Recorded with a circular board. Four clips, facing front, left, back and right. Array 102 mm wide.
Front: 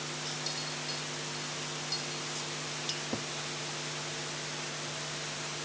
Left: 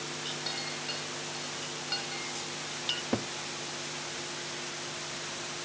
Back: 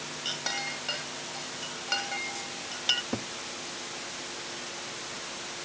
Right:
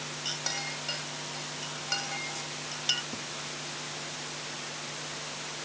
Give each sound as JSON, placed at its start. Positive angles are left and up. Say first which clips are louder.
{"t": 0.2, "sound": "a clink", "louder": "right 1 dB, back 4 dB", "azimuth_deg": -165}
{"t": 3.1, "sound": "a cupboard door", "louder": "left 9 dB, back 2 dB", "azimuth_deg": 110}